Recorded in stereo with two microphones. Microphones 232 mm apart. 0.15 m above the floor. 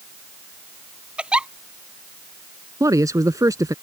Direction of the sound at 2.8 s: 15° right (ahead or behind).